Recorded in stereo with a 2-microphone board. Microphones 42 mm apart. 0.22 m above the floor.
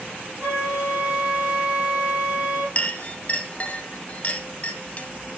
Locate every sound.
0.4 s a flute: 40° right (ahead or behind), 4 m
2.8 s a clink: 35° left (ahead or behind), 0.7 m